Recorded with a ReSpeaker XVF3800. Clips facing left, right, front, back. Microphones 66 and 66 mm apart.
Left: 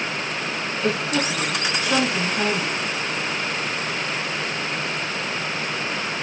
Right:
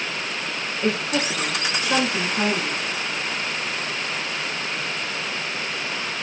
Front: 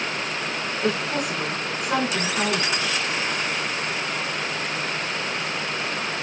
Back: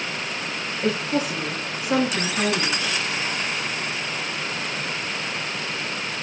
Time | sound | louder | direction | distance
0.8 | a woman speaking | even, back 2 dB | 35° right | 5 m